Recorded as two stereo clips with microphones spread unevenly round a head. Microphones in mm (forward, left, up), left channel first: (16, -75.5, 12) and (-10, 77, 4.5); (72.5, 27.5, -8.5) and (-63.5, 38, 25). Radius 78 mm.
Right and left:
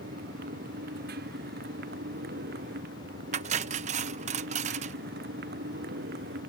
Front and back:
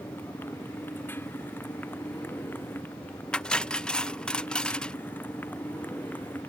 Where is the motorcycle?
70° left; by 6.5 s 75° left.